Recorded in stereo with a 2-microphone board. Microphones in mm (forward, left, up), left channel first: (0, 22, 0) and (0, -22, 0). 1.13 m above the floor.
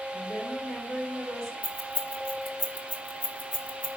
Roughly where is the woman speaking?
Centre.